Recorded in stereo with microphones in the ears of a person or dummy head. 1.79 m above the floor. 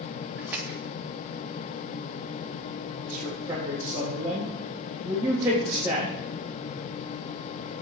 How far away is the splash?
About 3 m.